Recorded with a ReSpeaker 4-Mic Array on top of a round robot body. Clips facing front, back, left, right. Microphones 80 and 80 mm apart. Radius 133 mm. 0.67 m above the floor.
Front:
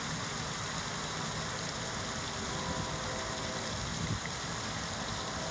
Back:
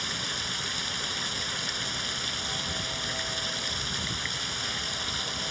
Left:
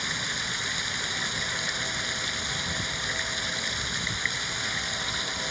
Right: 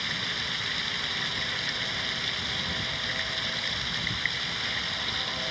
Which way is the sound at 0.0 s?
155° left.